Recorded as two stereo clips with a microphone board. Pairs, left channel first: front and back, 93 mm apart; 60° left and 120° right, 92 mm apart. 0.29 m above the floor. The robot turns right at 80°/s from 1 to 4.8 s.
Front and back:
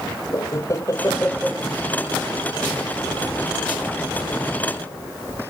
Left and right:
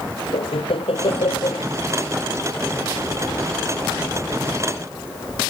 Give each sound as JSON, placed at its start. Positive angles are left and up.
{"t": 0.3, "sound": "laughter", "azimuth_deg": 55}